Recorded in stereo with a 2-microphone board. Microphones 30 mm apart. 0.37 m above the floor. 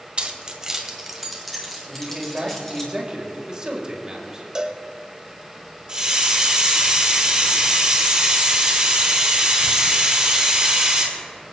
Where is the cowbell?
20° right (ahead or behind), 0.9 m.